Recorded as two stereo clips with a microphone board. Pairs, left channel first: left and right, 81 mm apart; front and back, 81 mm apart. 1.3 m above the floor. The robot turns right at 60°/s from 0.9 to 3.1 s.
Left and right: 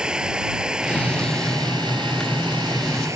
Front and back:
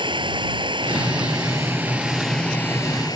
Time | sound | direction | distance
0.0 | running water | 170° right | ?